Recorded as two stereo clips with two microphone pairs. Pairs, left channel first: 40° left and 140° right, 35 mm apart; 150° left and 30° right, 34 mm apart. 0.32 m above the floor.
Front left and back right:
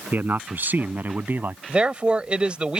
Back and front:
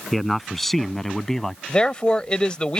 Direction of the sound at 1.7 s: 170° right.